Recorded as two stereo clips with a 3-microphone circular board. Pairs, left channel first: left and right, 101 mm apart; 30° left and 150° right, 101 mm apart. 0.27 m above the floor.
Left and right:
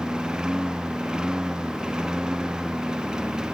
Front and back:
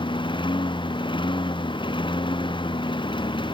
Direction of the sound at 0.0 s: 10° right.